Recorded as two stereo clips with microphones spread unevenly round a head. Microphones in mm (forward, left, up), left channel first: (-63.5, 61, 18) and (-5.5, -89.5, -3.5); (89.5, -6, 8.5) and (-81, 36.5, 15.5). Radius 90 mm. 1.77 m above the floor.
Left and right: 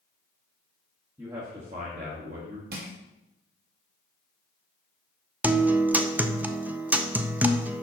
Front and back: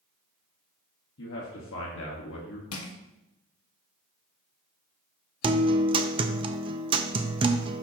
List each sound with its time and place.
1.2 s a man speaking: 10° left, 1.3 m; by 2.6 s 25° right, 1.8 m
2.7 s crushing: 20° right, 1.4 m
5.4 s a guitar: 155° right, 0.5 m